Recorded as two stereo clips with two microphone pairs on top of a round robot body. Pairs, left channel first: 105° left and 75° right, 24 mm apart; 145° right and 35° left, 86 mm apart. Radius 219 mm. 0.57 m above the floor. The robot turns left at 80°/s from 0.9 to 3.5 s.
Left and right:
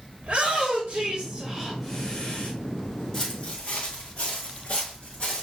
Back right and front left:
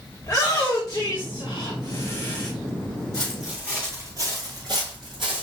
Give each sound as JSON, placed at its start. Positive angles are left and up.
{"t": 0.2, "sound": "a shout", "azimuth_deg": -105, "distance_m": 1.8}
{"t": 3.1, "sound": "footsteps", "azimuth_deg": 165, "distance_m": 1.0}